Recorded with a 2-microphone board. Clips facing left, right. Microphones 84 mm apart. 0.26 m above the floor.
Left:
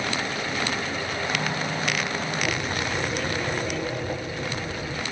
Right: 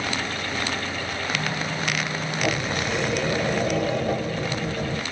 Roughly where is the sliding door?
Right.